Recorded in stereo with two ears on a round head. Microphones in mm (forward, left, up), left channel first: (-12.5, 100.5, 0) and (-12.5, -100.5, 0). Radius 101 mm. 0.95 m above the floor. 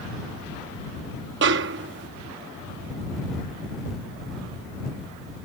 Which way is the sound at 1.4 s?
50° right (ahead or behind).